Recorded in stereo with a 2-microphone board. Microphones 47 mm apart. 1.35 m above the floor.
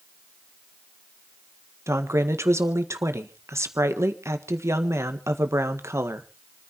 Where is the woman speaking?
75° right (ahead or behind), 1.6 m.